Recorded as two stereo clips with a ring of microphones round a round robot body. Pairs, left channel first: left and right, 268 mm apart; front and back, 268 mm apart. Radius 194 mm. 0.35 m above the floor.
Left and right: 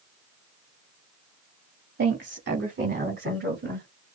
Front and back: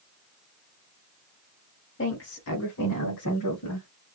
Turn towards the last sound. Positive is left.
turn(degrees=-40)